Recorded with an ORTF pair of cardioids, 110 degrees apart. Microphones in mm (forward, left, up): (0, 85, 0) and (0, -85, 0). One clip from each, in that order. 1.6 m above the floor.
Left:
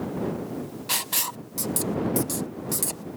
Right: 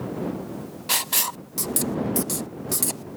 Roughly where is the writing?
Ahead.